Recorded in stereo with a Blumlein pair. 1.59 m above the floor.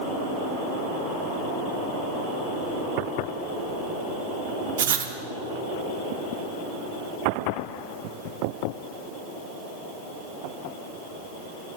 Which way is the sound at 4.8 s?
60° right.